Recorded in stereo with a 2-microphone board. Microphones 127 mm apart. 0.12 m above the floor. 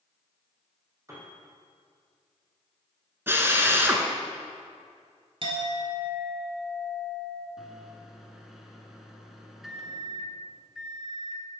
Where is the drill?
20° right (ahead or behind), 1.0 m.